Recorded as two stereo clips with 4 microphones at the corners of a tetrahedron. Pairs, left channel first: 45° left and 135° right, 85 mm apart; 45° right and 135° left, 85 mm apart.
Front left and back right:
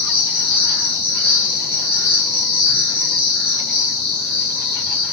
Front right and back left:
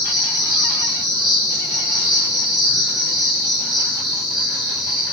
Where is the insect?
140° right, 2.5 m.